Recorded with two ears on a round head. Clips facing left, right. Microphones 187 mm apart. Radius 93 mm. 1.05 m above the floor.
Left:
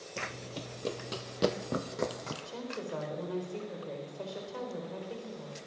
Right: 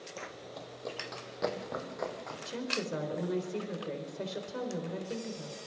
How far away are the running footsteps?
About 1.2 m.